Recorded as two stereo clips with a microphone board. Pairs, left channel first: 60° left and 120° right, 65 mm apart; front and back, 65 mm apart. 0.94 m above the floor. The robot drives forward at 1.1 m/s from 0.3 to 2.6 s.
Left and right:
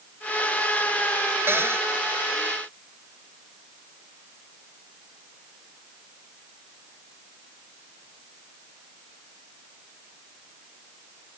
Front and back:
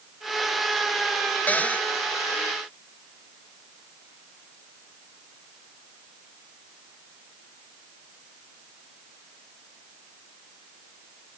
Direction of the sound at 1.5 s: 65° right.